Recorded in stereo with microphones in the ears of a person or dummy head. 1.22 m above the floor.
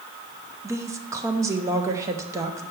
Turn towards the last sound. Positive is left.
turn(degrees=-15)  # may be behind; listen again after turning